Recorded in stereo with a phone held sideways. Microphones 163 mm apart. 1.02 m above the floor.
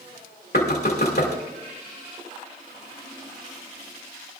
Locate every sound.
0.5 s knocking: 85° left, 2 m